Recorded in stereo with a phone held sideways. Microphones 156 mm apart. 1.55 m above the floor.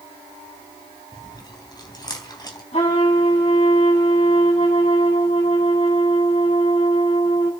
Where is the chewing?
25° left (ahead or behind), 3.5 m.